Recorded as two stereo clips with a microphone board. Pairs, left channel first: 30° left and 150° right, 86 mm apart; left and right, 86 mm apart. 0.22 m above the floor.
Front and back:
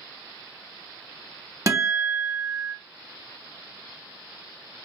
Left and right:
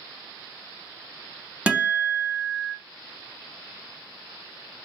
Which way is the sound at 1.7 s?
155° right.